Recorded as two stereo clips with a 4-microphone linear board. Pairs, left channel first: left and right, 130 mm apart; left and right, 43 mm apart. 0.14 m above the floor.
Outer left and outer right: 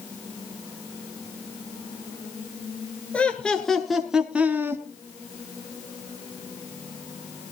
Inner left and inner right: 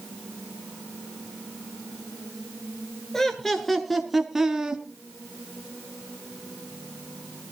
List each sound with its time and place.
3.1 s laughter: 10° left (ahead or behind), 2.5 m; by 4.8 s 20° right (ahead or behind), 1.4 m